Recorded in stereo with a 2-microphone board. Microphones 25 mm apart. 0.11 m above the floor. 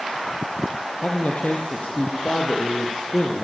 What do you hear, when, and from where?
1.0 s a man speaking: 50° left (ahead or behind), 3.5 m; by 3.4 s 65° left (ahead or behind), 4 m